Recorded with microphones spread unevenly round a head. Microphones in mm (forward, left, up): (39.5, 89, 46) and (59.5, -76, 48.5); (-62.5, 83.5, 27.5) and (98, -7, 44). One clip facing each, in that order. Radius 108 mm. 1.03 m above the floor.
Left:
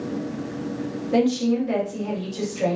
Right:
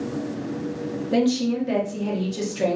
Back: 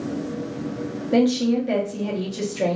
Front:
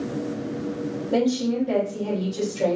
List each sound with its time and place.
1.1 s a woman speaking: 140° right, 0.9 m